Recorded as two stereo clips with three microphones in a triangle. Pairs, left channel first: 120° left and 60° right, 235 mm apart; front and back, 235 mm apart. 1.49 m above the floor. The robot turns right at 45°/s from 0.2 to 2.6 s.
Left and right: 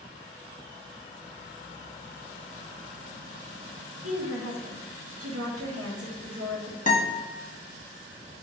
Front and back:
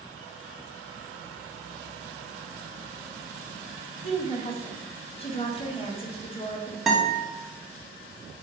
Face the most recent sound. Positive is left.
turn(degrees=90)